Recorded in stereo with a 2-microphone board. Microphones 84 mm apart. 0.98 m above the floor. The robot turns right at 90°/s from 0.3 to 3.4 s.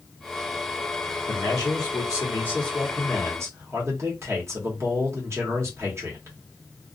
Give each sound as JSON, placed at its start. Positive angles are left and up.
{"t": 1.3, "sound": "a man speaking", "azimuth_deg": 40, "distance_m": 1.1}